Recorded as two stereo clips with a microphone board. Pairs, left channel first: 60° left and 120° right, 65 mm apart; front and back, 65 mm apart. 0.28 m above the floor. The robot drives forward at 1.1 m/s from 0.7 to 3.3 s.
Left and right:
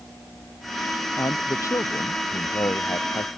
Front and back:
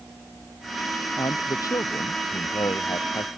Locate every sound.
1.2 s a man speaking: 25° left; by 3.3 s 30° left